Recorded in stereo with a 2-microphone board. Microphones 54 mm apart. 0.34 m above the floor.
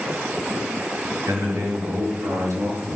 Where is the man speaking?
70° right (ahead or behind), 5 m; by 3.0 s 75° right (ahead or behind), 5 m.